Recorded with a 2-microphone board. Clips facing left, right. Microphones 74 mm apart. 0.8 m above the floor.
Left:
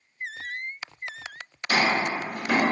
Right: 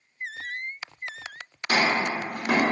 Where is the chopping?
60° right (ahead or behind), 1.4 m.